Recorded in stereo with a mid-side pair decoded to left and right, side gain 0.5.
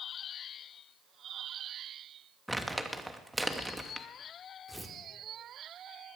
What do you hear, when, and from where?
2.5 s crumpling: 5° right, 1.3 m
4.7 s tearing paper: 5° right, 2.0 m